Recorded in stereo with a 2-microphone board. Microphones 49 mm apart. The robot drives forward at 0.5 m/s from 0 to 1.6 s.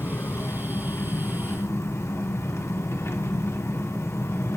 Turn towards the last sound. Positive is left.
turn(degrees=65)  # may be behind; listen again after turning